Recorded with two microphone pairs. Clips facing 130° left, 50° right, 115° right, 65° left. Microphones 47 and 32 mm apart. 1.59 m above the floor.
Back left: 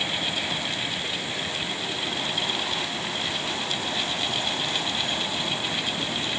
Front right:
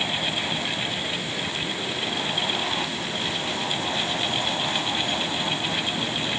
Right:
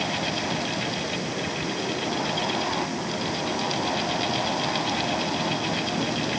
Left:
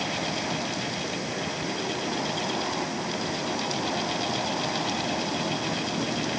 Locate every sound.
Only background noise.